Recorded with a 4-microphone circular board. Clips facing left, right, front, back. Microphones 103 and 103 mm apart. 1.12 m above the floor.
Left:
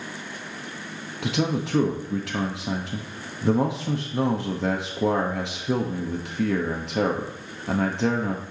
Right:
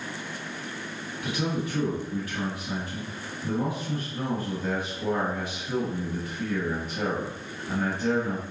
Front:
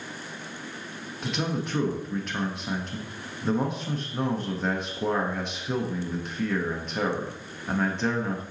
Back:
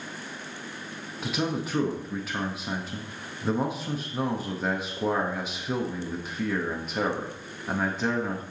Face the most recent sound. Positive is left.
turn(degrees=95)